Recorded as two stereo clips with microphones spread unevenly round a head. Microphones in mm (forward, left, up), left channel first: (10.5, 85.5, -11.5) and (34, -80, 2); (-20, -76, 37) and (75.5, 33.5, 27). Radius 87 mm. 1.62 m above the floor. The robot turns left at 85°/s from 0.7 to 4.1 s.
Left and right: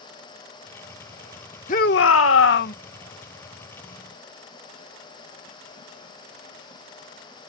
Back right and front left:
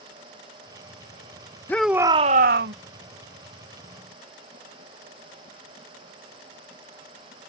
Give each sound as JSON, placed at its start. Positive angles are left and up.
{"t": 1.7, "sound": "a shout", "azimuth_deg": 150}